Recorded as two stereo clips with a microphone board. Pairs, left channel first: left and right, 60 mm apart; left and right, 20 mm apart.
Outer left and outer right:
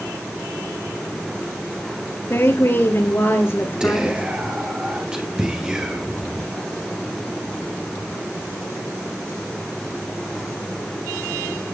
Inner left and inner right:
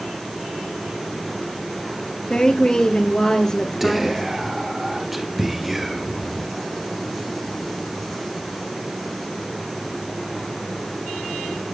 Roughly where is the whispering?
Centre.